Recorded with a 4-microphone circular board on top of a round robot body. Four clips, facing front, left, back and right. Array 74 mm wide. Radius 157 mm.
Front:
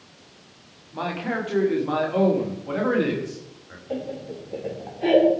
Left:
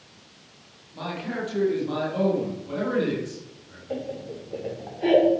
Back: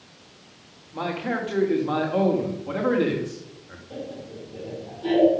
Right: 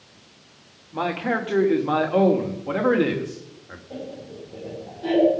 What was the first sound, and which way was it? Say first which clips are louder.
A man speaking: right 7 dB, even; 90° right.